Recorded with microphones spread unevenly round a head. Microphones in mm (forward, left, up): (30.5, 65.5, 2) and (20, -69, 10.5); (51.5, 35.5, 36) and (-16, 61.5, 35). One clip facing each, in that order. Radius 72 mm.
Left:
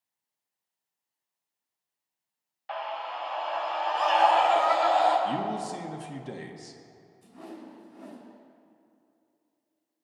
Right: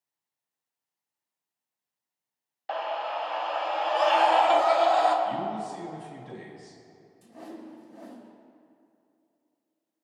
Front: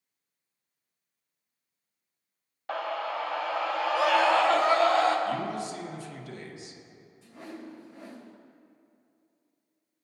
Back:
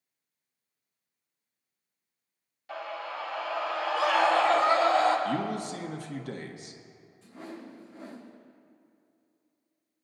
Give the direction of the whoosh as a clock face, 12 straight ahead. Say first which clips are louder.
Right 1 dB, even; 3 o'clock.